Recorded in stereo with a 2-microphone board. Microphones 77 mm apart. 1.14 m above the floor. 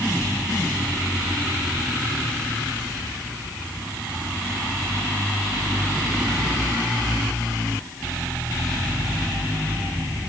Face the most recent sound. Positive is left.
No sound to turn to.